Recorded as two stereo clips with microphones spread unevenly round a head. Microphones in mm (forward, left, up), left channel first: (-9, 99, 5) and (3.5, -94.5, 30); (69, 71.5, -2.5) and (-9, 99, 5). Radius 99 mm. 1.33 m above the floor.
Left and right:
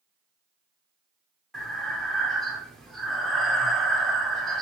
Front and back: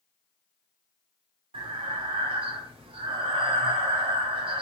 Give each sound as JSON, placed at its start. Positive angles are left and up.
{"t": 1.5, "sound": "breathing", "azimuth_deg": 180, "distance_m": 0.5}